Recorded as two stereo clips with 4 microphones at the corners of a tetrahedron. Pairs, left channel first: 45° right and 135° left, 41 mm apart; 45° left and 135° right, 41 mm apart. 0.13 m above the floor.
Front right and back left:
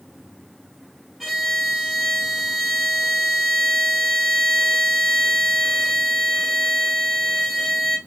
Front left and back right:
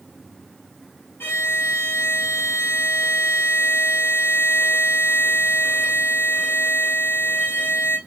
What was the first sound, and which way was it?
A violin, 45° left.